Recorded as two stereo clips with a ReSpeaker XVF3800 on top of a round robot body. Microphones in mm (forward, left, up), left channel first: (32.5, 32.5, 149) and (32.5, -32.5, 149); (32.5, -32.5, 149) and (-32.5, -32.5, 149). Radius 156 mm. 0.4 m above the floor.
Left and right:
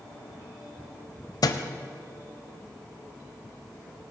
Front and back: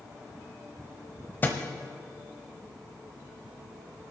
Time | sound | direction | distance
1.4 | a thud | 65° left | 0.7 m